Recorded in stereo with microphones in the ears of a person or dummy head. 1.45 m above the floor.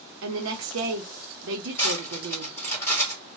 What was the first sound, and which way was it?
A woman speaking, 80° right.